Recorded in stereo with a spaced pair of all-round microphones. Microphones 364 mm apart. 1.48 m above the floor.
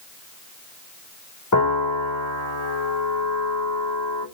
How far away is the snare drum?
I don't hear a snare drum.